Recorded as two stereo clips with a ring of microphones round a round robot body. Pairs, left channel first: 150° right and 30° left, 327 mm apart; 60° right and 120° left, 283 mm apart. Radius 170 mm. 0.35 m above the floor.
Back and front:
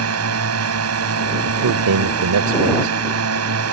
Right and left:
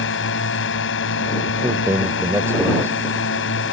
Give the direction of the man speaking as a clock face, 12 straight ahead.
11 o'clock.